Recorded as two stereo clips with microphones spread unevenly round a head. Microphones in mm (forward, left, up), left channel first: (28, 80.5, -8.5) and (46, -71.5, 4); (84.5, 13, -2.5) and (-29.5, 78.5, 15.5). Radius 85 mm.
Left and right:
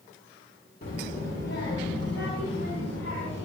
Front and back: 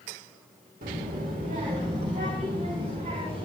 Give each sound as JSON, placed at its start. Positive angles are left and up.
{"t": 0.8, "sound": "a child speaking", "azimuth_deg": 145, "distance_m": 1.8}